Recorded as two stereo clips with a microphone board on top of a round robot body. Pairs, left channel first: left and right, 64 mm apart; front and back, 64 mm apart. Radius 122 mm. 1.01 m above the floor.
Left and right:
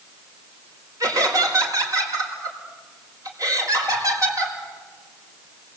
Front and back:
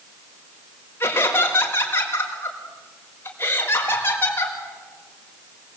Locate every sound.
1.0 s laughter: 55° right, 5 m